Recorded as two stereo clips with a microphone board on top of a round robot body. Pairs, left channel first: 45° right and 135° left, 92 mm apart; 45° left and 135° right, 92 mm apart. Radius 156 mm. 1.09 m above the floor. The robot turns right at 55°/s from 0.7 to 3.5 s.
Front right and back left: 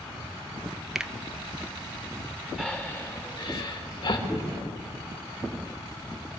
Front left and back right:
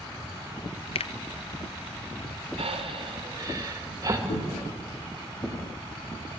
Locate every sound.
0.9 s a finger snap: 50° left, 0.6 m; by 1.1 s 60° left, 0.6 m
2.6 s breathing: 130° right, 2.5 m; by 4.2 s 80° right, 2.5 m
4.3 s footsteps: 40° left, 3.5 m; by 5.6 s 30° left, 3 m